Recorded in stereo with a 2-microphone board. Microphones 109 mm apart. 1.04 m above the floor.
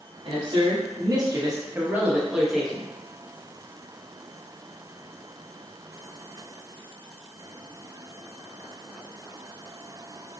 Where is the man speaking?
50° right (ahead or behind), 1.8 m; by 2.9 s 10° left (ahead or behind), 1.3 m.